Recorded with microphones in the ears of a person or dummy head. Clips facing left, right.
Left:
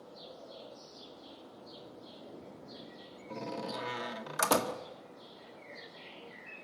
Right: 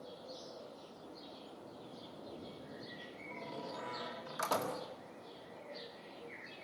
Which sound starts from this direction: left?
A door slam, at 3.3 s.